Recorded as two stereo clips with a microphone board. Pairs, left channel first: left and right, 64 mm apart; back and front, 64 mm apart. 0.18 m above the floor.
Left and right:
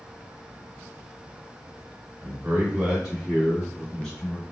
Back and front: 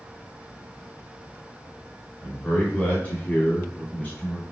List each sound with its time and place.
2.2 s a man speaking: 125° right, 1.8 m; by 4.4 s 140° left, 1.7 m